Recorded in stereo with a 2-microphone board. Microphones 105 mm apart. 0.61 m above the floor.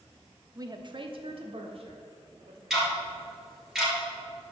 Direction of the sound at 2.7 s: 5° right (ahead or behind).